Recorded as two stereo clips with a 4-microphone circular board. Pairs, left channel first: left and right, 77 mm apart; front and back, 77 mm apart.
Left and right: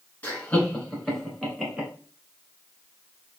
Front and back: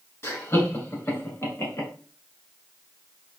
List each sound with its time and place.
0.2 s laughter: 30° left, 1.8 m; by 1.9 s 15° right, 1.7 m